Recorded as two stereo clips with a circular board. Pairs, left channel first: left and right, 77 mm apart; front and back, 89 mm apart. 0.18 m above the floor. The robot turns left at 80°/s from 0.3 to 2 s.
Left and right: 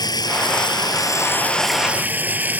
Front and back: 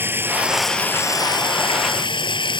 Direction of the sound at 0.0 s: 115° left.